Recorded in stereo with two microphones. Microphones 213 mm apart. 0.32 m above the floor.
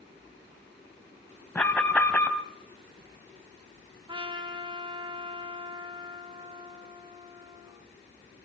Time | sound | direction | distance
1.6 | an alarm | 5° left (ahead or behind) | 1.8 m
4.1 | a trumpet | 25° right (ahead or behind) | 2 m